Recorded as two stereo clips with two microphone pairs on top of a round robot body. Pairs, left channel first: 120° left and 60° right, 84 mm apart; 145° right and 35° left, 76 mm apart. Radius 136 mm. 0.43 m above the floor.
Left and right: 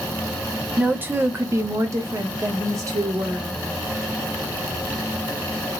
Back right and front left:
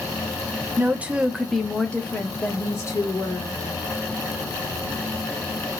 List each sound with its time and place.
0.8 s a woman speaking: 5° left, 0.9 m; by 3.6 s 105° right, 1.5 m